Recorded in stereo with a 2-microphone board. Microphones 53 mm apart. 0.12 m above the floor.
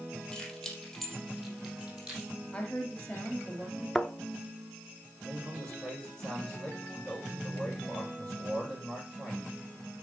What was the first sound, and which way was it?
Keys jangling, 15° left (ahead or behind).